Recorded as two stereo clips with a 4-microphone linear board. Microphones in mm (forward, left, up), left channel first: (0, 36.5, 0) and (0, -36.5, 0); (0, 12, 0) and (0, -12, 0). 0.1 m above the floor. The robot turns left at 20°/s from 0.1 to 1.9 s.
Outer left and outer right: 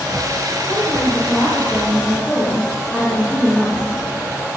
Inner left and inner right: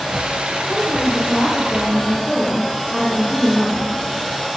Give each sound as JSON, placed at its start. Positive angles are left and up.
{"t": 0.7, "sound": "a woman speaking", "side_deg": 35, "distance_m": 2.5}